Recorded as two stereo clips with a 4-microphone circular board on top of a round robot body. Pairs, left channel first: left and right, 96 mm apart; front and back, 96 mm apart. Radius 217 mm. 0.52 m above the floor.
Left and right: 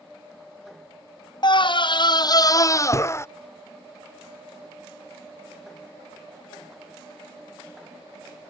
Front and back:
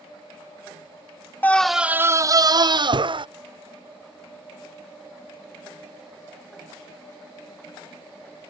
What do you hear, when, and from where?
1.4 s a scream: 70° left; by 3.2 s 150° left